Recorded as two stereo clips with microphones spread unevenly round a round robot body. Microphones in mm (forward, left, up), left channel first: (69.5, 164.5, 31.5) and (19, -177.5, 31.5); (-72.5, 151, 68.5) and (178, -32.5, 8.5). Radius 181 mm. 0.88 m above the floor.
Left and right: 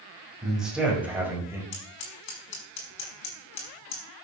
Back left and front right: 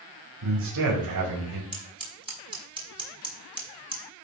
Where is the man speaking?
10° right, 5.5 m; by 1.6 s 15° right, 5 m.